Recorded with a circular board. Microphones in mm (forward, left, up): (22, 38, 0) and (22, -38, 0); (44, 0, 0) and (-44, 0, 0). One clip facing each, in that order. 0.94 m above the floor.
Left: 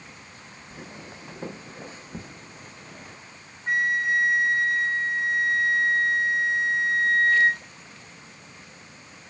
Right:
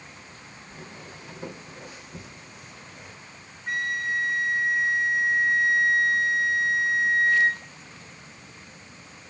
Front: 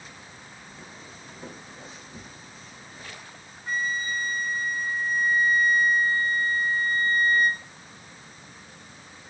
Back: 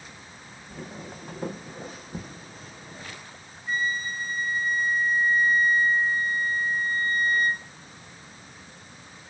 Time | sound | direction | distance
0.7 | footsteps | 160° left | 1.8 m
3.7 | a flute | 25° left | 2.5 m